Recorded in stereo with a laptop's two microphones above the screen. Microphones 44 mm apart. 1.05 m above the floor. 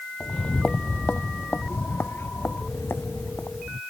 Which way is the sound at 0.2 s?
20° left (ahead or behind).